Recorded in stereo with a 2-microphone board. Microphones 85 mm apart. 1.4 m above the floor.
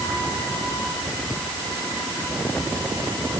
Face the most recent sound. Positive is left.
No sound to turn to.